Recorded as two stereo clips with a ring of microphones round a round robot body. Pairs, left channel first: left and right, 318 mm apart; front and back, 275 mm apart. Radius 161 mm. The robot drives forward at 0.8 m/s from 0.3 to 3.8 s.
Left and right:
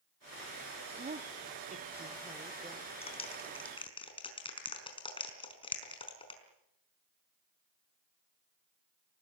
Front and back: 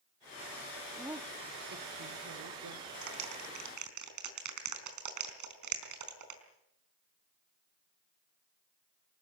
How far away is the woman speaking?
About 0.9 m.